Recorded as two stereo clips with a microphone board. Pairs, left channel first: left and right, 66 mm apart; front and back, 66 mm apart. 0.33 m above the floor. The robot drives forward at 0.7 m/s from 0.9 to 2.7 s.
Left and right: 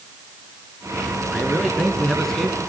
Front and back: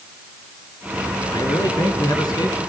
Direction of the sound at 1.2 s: 5° left.